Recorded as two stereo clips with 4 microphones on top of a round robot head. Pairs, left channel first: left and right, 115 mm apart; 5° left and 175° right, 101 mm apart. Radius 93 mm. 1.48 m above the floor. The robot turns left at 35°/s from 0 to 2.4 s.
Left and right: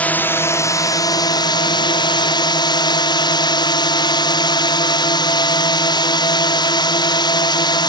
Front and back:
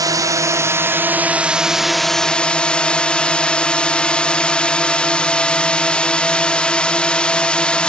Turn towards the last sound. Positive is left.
turn(degrees=80)